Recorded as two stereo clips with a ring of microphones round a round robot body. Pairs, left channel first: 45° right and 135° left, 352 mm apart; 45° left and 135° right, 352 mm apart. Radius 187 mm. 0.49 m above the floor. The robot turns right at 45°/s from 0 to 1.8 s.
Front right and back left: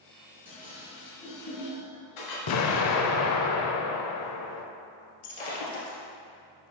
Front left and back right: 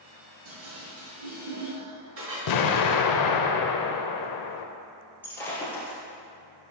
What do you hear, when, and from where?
0.5 s dishes clattering: 140° right, 3 m; by 2.4 s 80° right, 3 m
2.5 s an explosion: 5° left, 0.6 m
5.2 s breaking glass: 40° right, 2 m